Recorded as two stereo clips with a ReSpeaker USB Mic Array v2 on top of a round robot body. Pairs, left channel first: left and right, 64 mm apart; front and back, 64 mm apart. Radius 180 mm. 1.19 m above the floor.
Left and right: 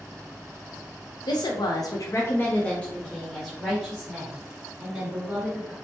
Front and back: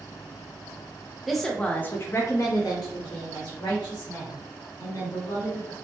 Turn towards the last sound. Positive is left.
turn(degrees=-15)